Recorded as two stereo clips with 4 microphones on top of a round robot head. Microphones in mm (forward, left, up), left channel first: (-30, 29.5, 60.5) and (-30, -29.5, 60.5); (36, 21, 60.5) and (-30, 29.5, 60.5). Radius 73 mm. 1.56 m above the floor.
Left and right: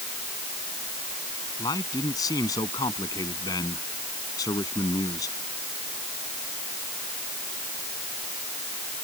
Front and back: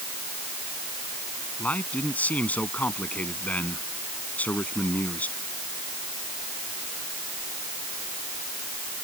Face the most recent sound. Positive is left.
turn(degrees=60)